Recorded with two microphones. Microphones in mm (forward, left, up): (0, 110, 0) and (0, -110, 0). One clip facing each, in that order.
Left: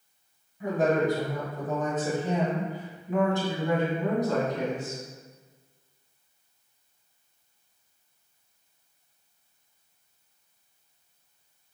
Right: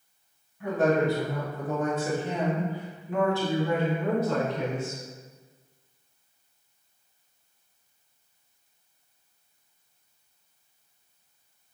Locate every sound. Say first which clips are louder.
0.6 s a woman speaking: right 1 dB; 15° left (ahead or behind), 1.5 m